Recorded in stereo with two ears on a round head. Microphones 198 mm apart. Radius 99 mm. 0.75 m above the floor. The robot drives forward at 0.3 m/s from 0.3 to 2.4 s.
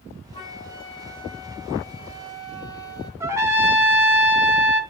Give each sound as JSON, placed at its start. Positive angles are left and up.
{"t": 0.3, "sound": "a flute", "side_deg": 20, "distance_m": 2.5}
{"t": 3.2, "sound": "a trumpet", "side_deg": -15, "distance_m": 2.0}